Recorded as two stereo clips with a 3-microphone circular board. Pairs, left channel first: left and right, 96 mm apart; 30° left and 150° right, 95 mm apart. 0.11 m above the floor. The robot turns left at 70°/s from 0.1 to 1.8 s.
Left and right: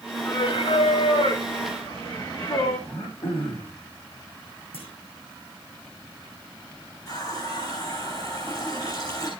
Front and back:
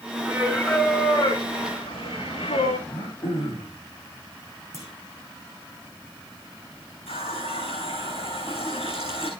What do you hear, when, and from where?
0.2 s singing: 150° left, 2 m; by 2.8 s 40° left, 2 m
2.9 s throat clearing: 85° left, 6.5 m
4.7 s a clunk: 90° left, 4 m
7.1 s a running tap: 40° left, 4.5 m